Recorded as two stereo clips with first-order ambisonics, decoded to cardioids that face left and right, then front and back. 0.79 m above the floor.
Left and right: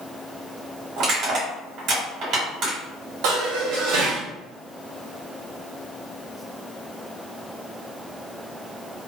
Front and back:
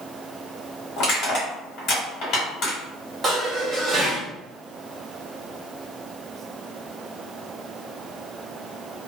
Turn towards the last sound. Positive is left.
turn(degrees=-105)